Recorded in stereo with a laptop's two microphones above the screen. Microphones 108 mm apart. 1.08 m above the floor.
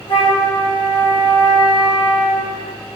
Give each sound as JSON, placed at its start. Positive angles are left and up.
{"t": 0.1, "sound": "a flute", "side_deg": 50, "distance_m": 0.7}